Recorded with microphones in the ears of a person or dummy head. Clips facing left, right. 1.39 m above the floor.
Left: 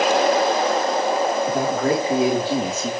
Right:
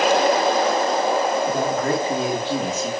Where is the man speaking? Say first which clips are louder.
Left 1 dB; 5° left (ahead or behind), 3.5 m; by 2.9 s 15° left (ahead or behind), 2.5 m.